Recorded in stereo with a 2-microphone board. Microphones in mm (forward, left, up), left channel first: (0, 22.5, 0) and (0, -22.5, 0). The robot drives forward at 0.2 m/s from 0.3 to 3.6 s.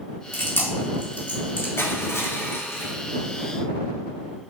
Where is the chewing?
50° left (ahead or behind), 2 m.